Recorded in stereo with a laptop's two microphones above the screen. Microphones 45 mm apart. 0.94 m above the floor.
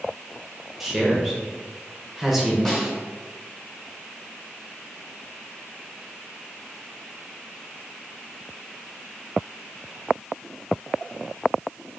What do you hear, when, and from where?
0.8 s a man speaking: 5° right (ahead or behind), 0.6 m
2.6 s a snare drum: 10° left (ahead or behind), 0.6 m